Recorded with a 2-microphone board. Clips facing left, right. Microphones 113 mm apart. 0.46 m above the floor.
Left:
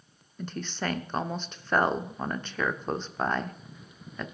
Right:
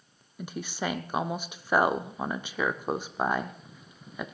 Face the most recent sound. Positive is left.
turn(degrees=-10)  # may be behind; listen again after turning